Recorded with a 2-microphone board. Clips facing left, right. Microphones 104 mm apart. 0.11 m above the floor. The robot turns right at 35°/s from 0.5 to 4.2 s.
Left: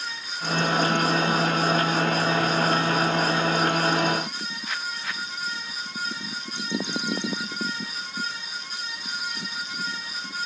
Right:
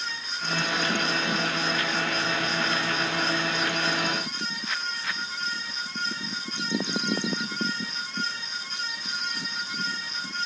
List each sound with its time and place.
Only background noise.